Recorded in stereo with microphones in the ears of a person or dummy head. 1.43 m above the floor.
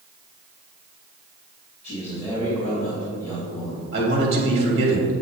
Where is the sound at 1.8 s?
35° right (ahead or behind), 3 m.